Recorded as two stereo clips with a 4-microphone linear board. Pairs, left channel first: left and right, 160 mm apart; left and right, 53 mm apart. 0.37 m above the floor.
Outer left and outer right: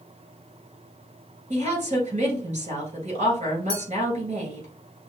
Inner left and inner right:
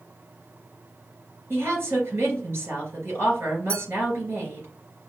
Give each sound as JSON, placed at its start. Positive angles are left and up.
{"t": 1.5, "sound": "a woman speaking", "side_deg": -45, "distance_m": 2.5}
{"t": 3.7, "sound": "a clink", "side_deg": -40, "distance_m": 3.0}